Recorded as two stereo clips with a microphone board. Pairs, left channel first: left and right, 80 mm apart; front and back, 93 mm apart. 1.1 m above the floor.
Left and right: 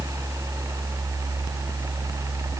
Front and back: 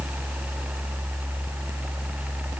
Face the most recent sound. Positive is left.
No sound to turn to.